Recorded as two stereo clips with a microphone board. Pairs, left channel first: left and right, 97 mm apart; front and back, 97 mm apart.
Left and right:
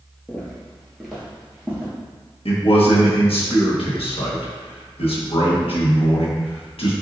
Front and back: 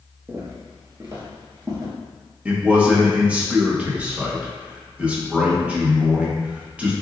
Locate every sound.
0.3 s footsteps: 150° left, 1.6 m; by 1.9 s 160° right, 1.8 m
2.5 s a man speaking: 105° left, 1.3 m